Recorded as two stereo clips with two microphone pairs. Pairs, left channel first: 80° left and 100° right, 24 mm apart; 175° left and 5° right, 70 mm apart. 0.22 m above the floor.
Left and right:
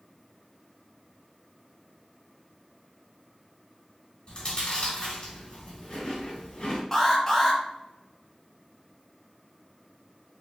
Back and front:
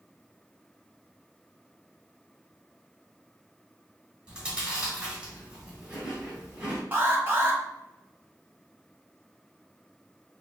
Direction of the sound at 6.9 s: 25° left.